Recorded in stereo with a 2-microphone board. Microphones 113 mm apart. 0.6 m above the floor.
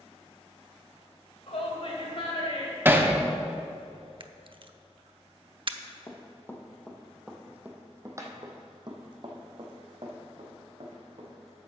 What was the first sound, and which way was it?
A shout, 65° left (ahead or behind).